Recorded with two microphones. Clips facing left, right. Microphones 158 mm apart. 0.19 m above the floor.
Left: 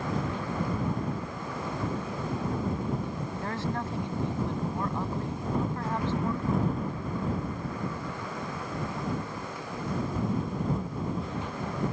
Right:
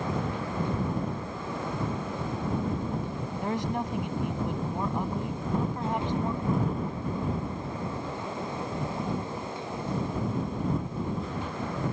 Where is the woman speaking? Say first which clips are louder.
Right 4 dB; 20° right (ahead or behind).